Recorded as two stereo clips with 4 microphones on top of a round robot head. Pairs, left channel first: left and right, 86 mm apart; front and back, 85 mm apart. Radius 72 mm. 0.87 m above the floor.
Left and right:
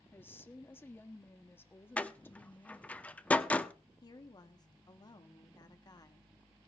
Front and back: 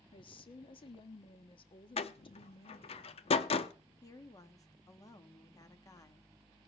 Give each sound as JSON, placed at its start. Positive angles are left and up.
{"t": 0.1, "sound": "a woman speaking", "azimuth_deg": 25, "distance_m": 1.5}
{"t": 2.0, "sound": "a door slam", "azimuth_deg": 15, "distance_m": 0.9}
{"t": 4.0, "sound": "a woman speaking", "azimuth_deg": 50, "distance_m": 1.8}